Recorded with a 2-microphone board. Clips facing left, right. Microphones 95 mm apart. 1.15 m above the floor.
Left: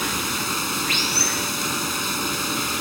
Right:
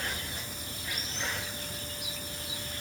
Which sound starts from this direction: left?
Running water, at 0.0 s.